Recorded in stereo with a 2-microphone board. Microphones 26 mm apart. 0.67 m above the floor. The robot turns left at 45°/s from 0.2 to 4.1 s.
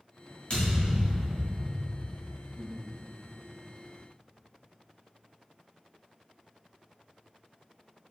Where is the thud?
140° left, 1.9 m; by 1.8 s 80° left, 1.9 m.